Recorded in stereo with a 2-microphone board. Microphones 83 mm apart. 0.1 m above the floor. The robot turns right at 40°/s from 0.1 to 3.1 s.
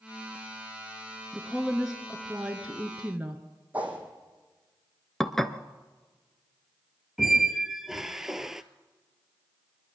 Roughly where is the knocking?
No knocking in this recording.